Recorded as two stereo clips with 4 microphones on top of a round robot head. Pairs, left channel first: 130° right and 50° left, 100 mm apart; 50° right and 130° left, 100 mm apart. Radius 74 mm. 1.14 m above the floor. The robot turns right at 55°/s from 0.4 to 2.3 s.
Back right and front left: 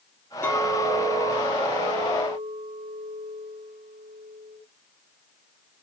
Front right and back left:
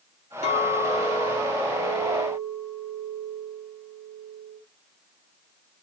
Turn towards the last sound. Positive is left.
turn(degrees=45)